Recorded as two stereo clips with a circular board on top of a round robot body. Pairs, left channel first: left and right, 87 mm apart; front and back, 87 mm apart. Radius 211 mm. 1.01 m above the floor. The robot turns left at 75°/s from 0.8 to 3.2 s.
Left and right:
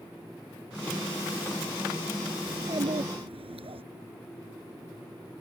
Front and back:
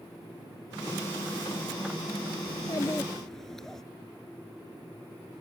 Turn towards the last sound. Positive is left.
turn(degrees=-85)